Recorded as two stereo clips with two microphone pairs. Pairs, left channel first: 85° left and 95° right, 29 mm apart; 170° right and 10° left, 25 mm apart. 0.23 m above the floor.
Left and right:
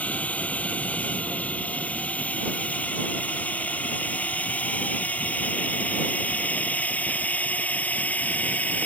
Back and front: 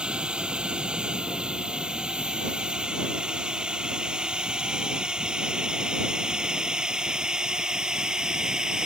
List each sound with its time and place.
0.0 s a drone: 55° left; by 8.9 s 65° left